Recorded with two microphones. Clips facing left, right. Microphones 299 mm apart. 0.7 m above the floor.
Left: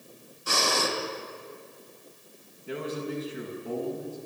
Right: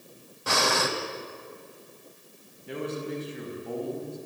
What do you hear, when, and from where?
0.5 s breathing: 70° right (ahead or behind), 3 m
2.7 s a man speaking: centre (ahead or behind), 7 m